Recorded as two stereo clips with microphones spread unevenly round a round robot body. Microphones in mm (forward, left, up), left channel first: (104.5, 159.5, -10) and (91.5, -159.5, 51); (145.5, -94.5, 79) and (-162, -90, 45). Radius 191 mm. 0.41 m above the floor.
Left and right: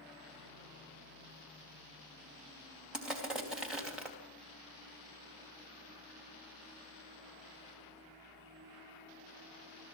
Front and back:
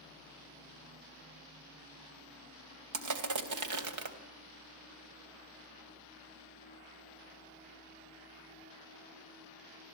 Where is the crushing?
175° left, 3 m.